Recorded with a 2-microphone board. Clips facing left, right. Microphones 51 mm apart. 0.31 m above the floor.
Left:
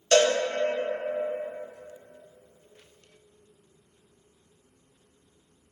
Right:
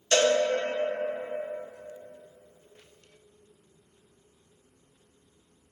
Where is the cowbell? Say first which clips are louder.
Left 2 dB; 40° left (ahead or behind), 1.2 m.